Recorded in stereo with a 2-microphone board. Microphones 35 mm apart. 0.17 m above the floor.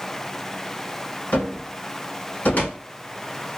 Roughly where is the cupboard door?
Left.